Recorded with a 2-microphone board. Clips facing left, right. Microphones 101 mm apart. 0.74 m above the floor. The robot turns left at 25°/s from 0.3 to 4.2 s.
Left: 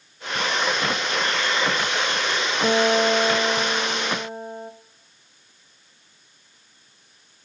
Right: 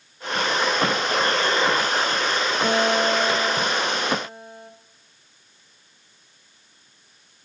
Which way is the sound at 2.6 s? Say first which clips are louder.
Left 3 dB; straight behind.